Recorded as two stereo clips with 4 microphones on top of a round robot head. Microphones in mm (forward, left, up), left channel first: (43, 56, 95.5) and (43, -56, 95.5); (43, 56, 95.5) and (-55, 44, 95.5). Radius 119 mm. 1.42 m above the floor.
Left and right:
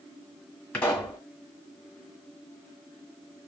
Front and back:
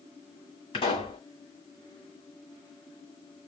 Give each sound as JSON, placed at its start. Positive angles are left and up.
{"t": 0.7, "sound": "a pop", "azimuth_deg": 15, "distance_m": 1.7}